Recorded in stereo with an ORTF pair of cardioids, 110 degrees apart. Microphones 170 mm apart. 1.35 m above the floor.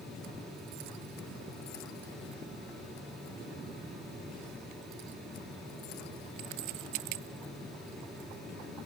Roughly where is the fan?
Ahead.